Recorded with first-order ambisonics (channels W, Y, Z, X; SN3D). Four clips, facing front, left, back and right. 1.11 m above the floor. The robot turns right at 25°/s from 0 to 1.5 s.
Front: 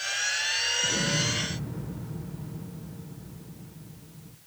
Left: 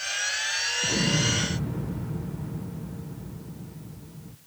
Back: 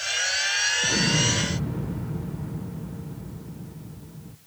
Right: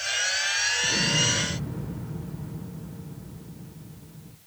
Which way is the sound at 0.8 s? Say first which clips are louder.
Right 1 dB, back 4 dB; 140° left.